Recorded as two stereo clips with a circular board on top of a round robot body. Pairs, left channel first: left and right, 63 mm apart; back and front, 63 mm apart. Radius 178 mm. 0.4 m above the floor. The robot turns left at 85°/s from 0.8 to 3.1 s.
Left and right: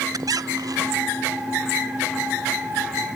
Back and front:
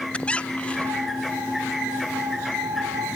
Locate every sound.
0.1 s a squeak: 110° right; by 1.1 s 135° right